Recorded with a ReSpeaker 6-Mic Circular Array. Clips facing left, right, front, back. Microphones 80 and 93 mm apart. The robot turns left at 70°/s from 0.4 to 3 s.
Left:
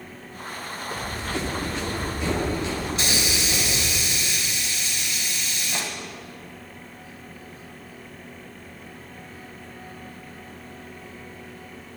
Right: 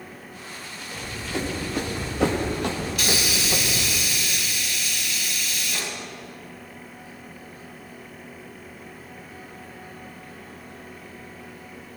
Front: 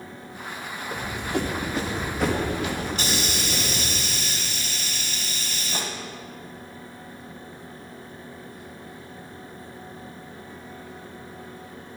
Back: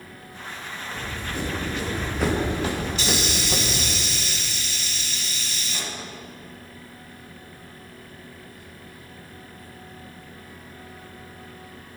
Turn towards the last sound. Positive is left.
turn(degrees=30)